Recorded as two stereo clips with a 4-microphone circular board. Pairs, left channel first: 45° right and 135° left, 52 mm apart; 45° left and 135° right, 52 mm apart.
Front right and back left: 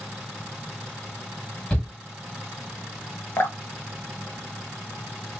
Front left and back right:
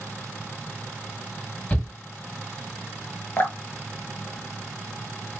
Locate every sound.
1.7 s a shout: 5° left, 1.7 m
3.4 s dripping: straight ahead, 0.6 m